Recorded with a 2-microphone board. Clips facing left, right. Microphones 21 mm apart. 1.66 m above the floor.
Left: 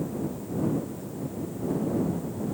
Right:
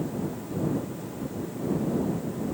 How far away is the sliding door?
No sliding door in this recording.